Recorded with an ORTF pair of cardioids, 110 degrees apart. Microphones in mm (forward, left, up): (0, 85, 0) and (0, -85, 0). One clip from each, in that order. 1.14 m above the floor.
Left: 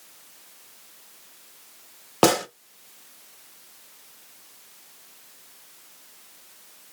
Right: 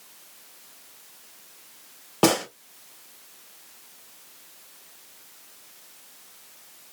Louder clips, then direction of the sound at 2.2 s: Left 2 dB; 40° left.